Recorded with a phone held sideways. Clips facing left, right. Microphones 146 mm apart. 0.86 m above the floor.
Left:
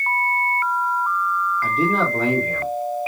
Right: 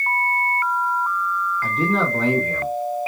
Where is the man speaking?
5° left (ahead or behind), 0.7 m.